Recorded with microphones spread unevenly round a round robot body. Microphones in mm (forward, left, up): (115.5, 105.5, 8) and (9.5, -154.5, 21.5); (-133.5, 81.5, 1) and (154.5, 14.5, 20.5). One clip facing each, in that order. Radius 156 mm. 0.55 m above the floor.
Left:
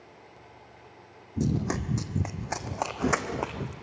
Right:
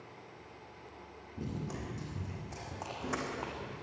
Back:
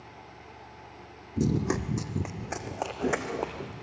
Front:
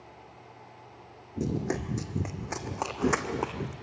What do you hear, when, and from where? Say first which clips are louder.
1.4 s running footsteps: left 12 dB, back 3 dB; 105° left, 1.4 m; by 3.7 s 45° left, 2 m